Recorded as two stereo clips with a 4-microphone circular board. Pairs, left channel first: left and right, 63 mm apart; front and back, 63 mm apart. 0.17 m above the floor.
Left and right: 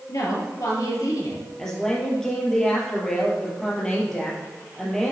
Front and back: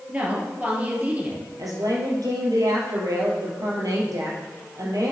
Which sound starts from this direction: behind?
A woman speaking, at 1.6 s.